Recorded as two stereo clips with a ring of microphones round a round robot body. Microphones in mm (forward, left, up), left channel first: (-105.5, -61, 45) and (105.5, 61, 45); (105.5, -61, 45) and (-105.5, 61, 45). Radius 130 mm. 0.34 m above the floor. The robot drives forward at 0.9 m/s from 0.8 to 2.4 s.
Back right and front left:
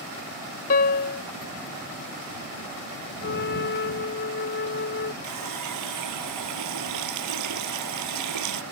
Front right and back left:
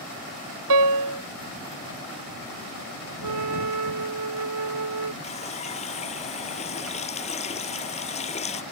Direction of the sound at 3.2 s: 165° left.